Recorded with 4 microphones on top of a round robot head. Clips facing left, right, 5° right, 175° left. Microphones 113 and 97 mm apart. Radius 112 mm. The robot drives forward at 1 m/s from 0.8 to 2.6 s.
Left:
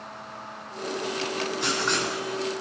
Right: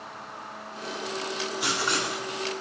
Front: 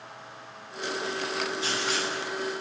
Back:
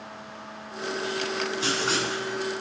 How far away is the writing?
About 2.5 m.